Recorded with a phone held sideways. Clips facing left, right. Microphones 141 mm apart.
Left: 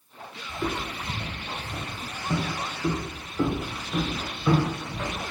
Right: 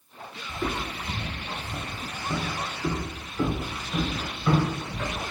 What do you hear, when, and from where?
0.5 s footsteps: 5° left (ahead or behind), 1.2 m; by 5.2 s 25° left (ahead or behind), 2 m